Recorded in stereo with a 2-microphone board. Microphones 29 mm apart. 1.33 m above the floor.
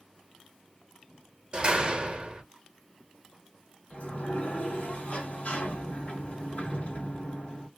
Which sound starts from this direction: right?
A door slam, at 1.5 s.